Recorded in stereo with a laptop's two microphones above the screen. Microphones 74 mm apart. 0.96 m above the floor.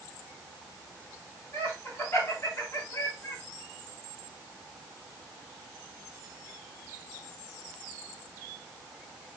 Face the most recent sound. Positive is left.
turn(degrees=45)  # may be behind; listen again after turning